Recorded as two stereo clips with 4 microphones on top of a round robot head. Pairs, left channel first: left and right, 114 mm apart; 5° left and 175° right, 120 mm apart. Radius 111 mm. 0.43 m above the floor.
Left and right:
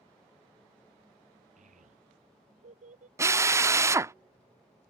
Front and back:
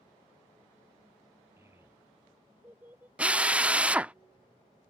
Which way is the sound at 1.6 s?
100° right.